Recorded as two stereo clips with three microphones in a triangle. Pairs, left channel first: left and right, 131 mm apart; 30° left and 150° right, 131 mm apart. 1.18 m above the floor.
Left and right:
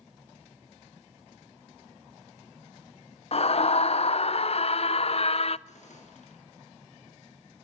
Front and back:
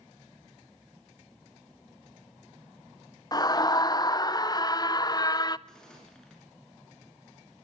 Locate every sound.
3.3 s a scream: 80° left, 0.5 m
5.7 s a gunshot: 115° left, 7 m